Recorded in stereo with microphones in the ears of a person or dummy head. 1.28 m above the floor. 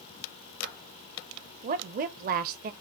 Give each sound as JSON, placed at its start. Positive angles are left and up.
{"t": 1.6, "sound": "a woman speaking", "side_deg": -40, "distance_m": 0.6}